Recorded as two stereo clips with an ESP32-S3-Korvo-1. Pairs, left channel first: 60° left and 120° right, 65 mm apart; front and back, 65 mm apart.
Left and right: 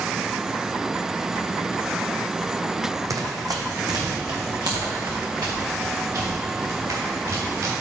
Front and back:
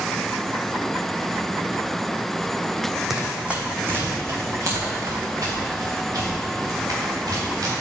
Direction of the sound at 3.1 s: 95° right.